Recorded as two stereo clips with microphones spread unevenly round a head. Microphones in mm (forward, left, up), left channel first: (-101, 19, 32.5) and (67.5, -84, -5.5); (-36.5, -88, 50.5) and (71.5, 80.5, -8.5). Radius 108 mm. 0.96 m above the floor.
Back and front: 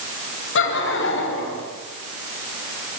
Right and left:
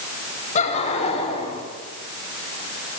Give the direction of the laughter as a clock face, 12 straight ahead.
6 o'clock.